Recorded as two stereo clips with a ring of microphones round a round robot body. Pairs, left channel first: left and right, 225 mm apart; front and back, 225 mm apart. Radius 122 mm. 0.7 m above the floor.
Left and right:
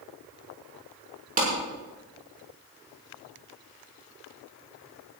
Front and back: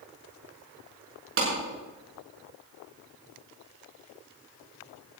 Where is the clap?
145° right, 6.5 m.